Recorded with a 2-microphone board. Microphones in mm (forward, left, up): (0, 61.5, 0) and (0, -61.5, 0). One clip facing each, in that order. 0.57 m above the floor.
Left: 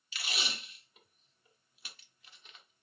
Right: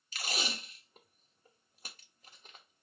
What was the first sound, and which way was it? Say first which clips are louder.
Tape being pulled: right 3 dB; 40° right (ahead or behind).